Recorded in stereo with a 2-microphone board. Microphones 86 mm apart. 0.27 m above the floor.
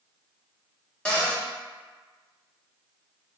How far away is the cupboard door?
About 0.8 m.